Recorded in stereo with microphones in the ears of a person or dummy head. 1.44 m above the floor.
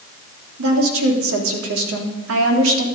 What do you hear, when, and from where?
0.6 s a woman speaking: 85° right, 3 m